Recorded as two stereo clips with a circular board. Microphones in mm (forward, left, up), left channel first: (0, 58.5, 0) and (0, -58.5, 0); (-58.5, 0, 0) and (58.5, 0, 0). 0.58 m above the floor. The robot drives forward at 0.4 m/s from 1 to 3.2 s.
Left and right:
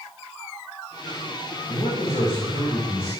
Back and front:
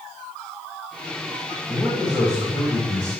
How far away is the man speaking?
About 3.5 m.